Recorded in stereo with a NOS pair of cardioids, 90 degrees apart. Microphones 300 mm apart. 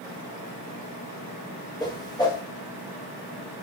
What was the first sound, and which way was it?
A whoosh, 15° left.